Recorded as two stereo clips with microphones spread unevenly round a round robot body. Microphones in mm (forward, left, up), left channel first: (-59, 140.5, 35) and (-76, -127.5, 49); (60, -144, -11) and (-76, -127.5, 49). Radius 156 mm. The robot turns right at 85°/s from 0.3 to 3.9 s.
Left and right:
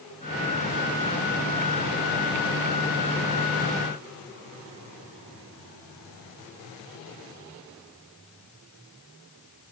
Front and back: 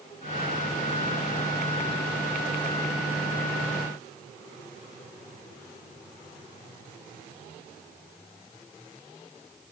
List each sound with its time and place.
Only background noise.